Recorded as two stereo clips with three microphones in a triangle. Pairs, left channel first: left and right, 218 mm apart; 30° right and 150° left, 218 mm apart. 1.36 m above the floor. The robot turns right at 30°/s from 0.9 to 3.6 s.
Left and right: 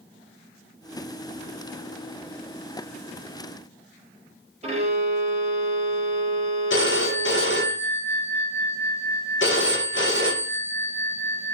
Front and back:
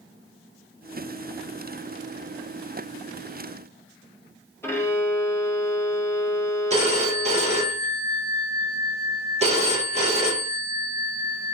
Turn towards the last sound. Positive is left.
turn(degrees=95)